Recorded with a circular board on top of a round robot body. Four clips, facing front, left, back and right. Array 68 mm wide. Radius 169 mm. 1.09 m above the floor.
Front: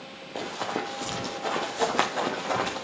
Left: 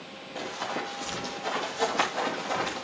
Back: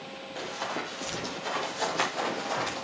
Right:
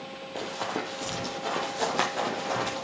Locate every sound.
0.3 s running footsteps: 35° right, 2 m; by 2.8 s 15° right, 3.5 m